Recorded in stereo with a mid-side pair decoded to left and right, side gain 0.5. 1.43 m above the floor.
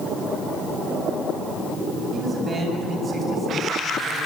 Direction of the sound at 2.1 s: 35° right.